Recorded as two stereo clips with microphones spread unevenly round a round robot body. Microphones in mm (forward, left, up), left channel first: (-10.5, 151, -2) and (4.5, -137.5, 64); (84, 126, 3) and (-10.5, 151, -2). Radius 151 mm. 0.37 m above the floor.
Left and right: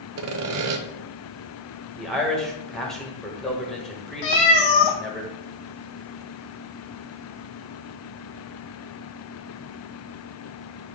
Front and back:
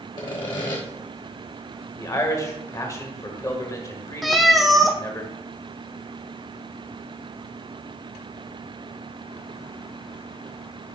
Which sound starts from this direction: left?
A cat meowing, at 4.2 s.